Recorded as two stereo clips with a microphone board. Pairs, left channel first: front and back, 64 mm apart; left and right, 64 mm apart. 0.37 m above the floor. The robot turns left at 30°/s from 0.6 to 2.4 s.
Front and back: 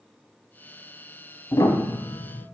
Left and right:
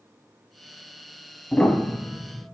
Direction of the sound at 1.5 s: 15° left.